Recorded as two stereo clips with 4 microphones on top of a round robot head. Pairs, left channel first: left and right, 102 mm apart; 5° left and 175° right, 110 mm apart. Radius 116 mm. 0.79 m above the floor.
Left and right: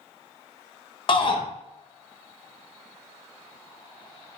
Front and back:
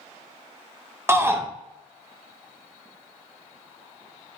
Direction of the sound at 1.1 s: 120° left.